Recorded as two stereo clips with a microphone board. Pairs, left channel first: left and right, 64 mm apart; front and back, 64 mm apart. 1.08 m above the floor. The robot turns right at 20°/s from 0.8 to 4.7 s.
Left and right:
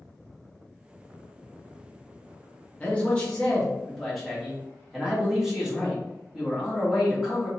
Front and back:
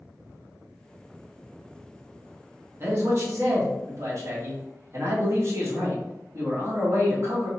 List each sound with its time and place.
2.8 s a man speaking: 150° left, 1.0 m; by 7.5 s 175° right, 1.0 m